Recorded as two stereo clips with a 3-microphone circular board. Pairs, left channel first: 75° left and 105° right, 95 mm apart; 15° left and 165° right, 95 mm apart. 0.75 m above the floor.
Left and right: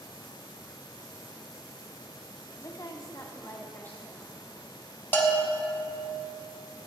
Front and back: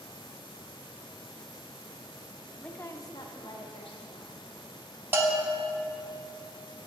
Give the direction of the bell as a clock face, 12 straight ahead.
8 o'clock.